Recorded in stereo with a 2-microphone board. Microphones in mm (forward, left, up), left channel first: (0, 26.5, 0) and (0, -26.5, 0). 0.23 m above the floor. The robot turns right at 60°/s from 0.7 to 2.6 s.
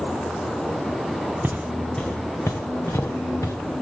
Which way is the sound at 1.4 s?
35° right (ahead or behind).